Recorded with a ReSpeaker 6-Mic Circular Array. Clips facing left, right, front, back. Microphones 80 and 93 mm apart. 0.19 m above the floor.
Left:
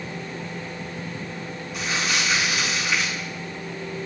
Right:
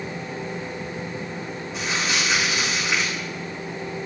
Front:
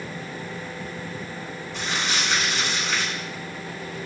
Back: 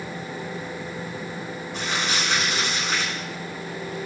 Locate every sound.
1.7 s crumpling: 150° right, 4.5 m